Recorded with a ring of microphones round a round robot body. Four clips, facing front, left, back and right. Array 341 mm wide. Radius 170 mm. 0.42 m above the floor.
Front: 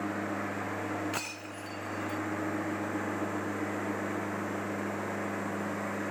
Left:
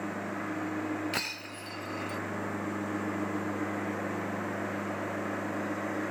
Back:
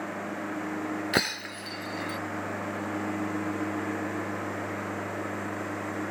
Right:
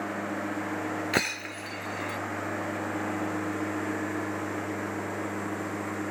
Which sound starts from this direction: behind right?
Breaking glass, at 1.1 s.